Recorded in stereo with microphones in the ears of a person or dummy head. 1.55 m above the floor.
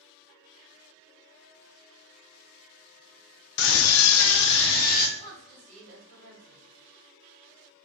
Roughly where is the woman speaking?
Right.